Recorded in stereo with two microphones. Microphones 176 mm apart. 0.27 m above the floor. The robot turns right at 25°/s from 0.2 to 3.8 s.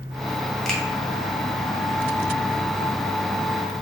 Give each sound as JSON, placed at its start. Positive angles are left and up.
{"t": 0.7, "sound": "a finger snap", "side_deg": 0, "distance_m": 1.1}